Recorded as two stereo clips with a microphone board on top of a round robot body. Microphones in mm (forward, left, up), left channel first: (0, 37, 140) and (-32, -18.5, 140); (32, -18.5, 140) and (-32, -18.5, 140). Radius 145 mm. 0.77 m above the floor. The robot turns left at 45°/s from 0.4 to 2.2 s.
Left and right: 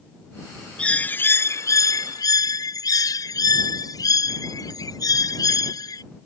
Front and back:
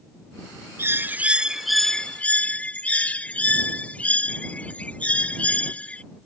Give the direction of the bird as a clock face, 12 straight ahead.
8 o'clock.